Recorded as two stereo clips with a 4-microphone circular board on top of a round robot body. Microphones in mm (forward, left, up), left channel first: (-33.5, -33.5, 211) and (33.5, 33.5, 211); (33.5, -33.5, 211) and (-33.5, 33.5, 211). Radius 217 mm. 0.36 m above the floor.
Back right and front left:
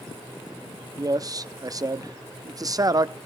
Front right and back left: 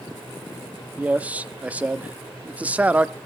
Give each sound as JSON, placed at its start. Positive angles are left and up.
{"t": 1.0, "sound": "a man speaking", "azimuth_deg": 65, "distance_m": 1.1}